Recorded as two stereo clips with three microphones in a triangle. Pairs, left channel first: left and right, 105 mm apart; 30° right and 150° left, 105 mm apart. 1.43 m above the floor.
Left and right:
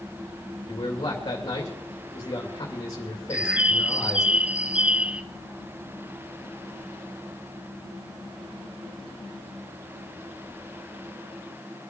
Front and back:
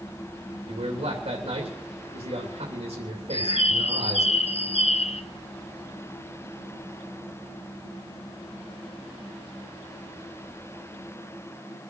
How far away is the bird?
About 0.7 m.